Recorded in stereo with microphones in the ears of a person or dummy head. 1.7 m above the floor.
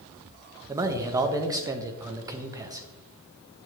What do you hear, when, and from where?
0.7 s a man speaking: 15° right (ahead or behind), 0.8 m